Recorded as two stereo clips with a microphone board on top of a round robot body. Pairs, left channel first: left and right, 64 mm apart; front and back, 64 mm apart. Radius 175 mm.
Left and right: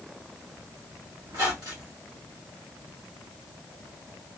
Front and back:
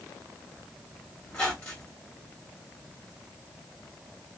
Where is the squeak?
70° right, 1.2 m.